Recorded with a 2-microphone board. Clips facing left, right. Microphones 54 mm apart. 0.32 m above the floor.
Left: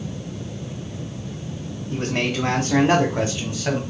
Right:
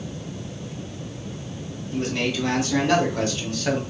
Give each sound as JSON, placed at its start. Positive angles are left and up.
{"t": 1.9, "sound": "a man speaking", "side_deg": 50, "distance_m": 1.5}